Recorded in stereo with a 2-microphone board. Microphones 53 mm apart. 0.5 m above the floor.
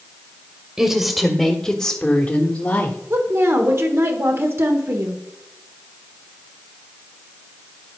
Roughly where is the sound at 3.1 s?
Right.